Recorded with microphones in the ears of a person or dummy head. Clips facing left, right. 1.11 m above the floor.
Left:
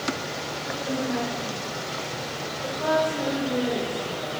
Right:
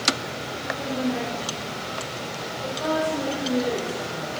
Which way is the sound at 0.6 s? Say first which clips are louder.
Right 2 dB; 5° right (ahead or behind).